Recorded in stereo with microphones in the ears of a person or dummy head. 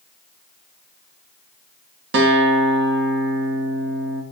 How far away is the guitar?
About 0.6 m.